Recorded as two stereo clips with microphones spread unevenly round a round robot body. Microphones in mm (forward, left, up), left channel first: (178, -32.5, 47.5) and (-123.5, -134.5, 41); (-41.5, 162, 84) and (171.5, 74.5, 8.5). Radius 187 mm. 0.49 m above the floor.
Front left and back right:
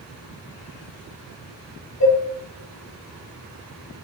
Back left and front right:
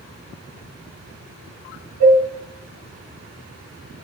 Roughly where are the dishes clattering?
Ahead.